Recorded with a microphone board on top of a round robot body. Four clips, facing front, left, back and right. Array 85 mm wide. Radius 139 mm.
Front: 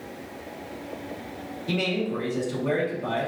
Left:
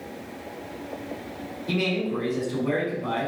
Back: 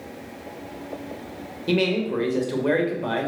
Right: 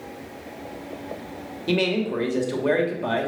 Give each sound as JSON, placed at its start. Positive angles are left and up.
{"t": 1.7, "sound": "a man speaking", "azimuth_deg": -135, "distance_m": 2.5}